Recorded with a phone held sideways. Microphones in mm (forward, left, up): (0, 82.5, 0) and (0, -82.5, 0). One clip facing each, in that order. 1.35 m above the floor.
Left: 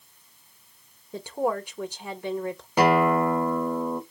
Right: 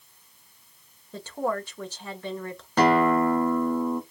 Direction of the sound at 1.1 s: 15° left (ahead or behind).